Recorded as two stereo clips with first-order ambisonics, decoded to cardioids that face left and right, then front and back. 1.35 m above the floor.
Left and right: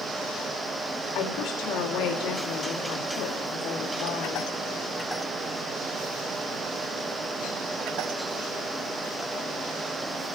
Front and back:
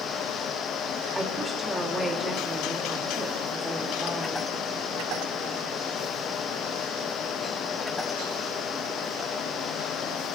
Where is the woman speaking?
95° left, 1.4 m.